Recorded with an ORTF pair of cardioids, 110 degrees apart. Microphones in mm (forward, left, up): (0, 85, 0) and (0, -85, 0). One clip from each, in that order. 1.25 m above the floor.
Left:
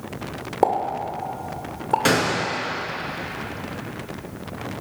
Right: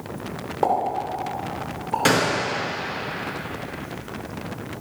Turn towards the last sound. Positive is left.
turn(degrees=5)